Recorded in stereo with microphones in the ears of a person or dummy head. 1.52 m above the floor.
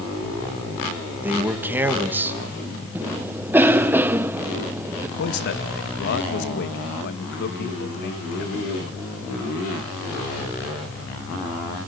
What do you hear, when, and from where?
1.2 s a man speaking: 15° right (ahead or behind), 2.5 m
3.0 s a cough: 15° right (ahead or behind), 0.7 m
5.2 s a man speaking: 55° left (ahead or behind), 2 m